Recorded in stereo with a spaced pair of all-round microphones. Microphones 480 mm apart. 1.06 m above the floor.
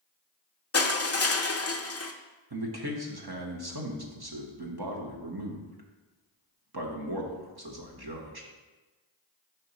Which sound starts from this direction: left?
Crushing, at 0.7 s.